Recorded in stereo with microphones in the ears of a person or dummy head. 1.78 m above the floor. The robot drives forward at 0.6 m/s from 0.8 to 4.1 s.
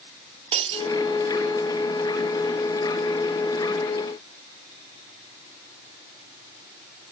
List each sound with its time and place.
0.5 s breaking glass: 25° right (ahead or behind)